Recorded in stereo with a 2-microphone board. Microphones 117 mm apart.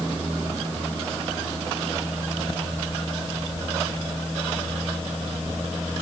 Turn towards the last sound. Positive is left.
No sound to turn to.